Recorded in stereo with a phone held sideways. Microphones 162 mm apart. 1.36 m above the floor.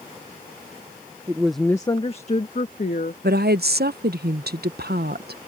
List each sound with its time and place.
1.3 s a woman speaking: 20° right (ahead or behind); by 3.1 s 60° left (ahead or behind)
3.2 s a woman speaking: 75° right (ahead or behind)